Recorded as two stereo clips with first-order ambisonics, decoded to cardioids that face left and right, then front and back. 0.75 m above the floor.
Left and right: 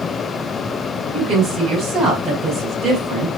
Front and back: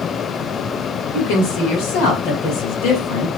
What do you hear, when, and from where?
1.1 s a woman speaking: 40° right, 5.5 m